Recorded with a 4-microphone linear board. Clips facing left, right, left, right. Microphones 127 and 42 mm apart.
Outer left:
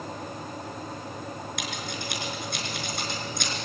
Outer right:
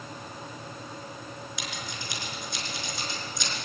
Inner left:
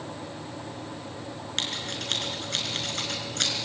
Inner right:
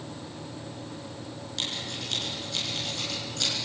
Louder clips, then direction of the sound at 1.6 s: Outer left 4 dB, inner left 2 dB; 60° left (ahead or behind).